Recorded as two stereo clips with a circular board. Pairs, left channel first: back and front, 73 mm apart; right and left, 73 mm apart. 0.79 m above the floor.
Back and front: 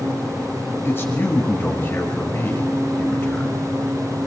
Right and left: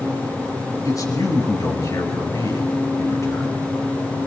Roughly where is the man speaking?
Behind right.